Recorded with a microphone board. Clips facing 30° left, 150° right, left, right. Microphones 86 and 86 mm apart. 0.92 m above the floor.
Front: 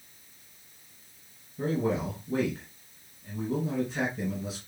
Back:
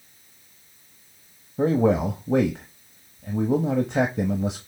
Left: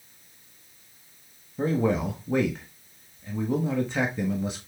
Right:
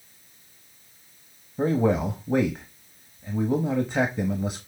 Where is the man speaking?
165° right, 0.9 m.